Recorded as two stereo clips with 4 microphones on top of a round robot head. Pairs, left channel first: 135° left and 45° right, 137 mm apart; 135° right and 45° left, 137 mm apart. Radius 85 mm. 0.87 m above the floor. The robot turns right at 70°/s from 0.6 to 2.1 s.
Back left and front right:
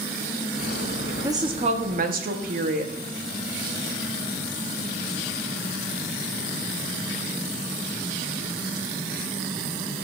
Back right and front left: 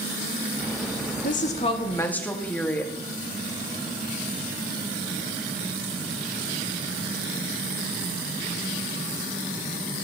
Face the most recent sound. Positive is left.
turn(degrees=-55)